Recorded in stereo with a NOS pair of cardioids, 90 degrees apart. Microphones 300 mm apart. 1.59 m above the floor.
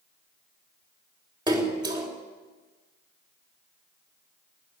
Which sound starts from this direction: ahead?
A splash, at 1.5 s.